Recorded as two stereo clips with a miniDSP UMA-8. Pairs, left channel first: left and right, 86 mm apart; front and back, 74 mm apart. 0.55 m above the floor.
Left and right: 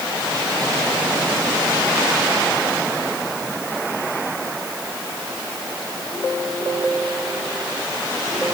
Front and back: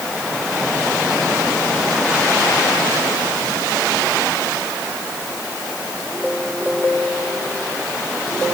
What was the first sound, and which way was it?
Only background noise.